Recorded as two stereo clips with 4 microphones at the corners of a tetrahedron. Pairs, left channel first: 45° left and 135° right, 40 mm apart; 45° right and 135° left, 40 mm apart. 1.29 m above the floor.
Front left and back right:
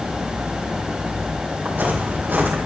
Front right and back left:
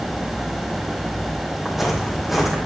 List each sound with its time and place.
1.6 s footsteps: 145° right, 2.5 m